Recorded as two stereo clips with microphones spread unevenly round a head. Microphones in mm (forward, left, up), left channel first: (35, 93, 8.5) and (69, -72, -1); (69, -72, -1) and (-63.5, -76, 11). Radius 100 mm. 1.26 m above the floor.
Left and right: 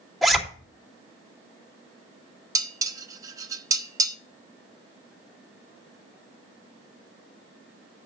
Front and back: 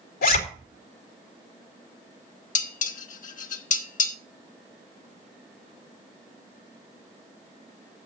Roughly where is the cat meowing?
No cat meowing in this recording.